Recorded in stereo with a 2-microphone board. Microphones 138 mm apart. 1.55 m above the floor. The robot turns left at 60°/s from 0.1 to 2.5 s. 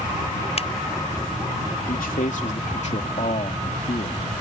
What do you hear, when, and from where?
0.6 s a finger snap: 50° left (ahead or behind); by 0.7 s 45° left (ahead or behind)
1.9 s a man speaking: 90° left; by 4.4 s 55° left